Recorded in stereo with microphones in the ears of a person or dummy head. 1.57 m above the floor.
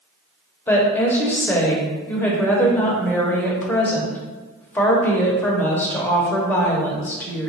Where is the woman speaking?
10° left (ahead or behind), 0.7 m.